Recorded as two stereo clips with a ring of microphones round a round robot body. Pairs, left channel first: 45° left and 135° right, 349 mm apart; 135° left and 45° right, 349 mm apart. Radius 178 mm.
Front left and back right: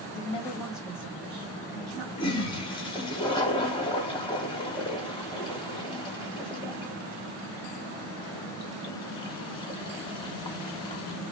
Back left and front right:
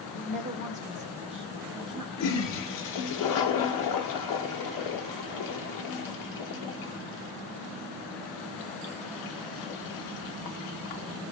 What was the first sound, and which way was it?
A woman speaking, 5° left.